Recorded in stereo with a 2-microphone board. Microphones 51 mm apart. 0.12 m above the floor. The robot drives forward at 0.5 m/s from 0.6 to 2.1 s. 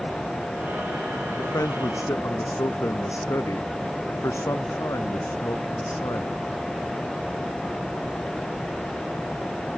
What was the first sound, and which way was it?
A man speaking, 75° left (ahead or behind).